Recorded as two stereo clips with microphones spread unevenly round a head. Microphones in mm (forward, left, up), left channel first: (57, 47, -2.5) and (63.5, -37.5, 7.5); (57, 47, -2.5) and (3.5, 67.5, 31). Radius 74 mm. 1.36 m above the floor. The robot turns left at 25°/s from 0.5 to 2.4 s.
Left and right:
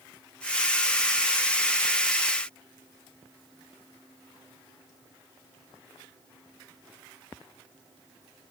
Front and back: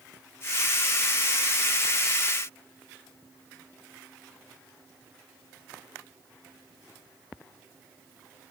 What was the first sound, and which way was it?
Only background noise.